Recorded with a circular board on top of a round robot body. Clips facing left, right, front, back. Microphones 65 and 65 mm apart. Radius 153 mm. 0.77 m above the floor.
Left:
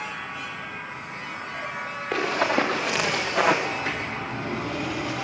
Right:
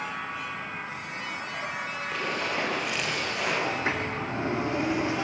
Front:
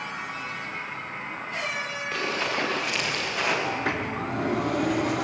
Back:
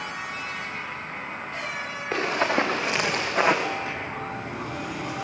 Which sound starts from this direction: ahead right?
A sliding door, at 3.7 s.